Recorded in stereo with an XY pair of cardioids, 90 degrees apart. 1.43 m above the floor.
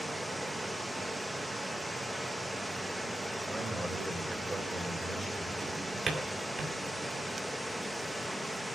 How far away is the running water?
About 1.3 m.